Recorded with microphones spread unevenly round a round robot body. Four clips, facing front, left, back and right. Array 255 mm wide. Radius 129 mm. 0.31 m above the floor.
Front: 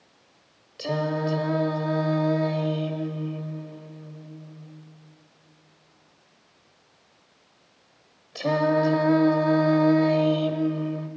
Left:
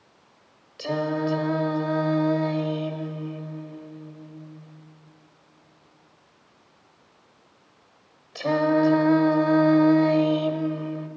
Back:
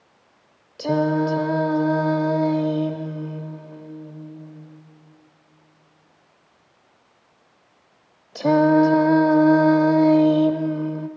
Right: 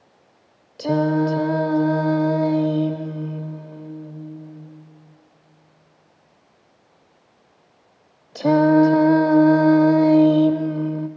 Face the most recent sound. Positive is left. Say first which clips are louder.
# right 7 dB, back 6 dB
turn(degrees=-120)